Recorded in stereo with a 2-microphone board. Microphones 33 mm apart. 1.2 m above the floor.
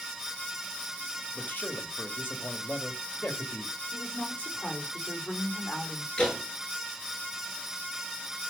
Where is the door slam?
25° left (ahead or behind), 9.5 m.